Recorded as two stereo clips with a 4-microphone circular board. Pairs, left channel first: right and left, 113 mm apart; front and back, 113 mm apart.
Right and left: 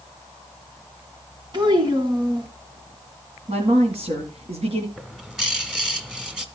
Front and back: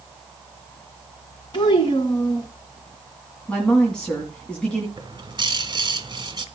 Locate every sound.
1.5 s a child speaking: 45° left, 2 m
3.5 s a woman speaking: 85° left, 2.5 m
5.0 s a bird: 170° left, 1.5 m